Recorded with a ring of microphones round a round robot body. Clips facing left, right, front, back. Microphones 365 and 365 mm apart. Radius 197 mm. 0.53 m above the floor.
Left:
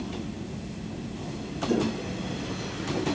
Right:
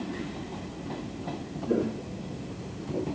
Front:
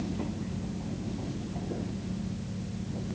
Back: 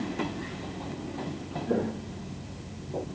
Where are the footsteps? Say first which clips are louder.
Left 1 dB, back 11 dB; 170° left; by 3.1 s 175° left.